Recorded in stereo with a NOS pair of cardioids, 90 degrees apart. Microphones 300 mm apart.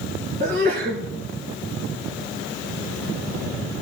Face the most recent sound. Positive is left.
turn(degrees=-35)